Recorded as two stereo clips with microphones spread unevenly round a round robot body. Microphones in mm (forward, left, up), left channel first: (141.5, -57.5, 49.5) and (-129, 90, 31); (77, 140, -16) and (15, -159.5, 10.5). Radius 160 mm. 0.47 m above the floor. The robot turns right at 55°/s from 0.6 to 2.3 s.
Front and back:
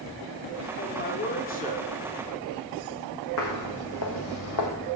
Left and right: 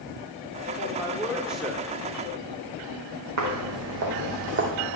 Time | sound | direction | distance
0.8 | a man speaking | 45° right | 1.0 m
3.4 | footsteps | 75° right | 1.6 m